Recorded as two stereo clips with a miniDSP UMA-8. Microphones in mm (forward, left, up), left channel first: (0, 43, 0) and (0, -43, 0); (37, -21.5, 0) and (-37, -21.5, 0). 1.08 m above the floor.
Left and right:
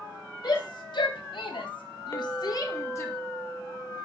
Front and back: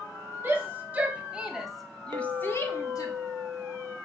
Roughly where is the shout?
Behind left.